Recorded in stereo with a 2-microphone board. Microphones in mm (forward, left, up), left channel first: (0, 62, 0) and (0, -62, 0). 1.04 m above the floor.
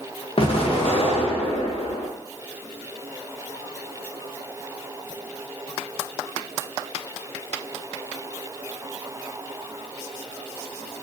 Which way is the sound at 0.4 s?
50° left (ahead or behind).